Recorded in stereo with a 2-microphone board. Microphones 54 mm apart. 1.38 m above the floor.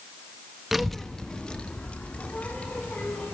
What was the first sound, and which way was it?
A child speaking, 5° right (ahead or behind).